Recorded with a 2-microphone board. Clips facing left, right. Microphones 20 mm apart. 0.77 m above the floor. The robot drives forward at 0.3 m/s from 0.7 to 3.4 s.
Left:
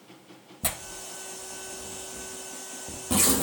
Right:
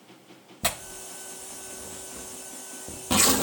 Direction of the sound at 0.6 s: 35° right (ahead or behind).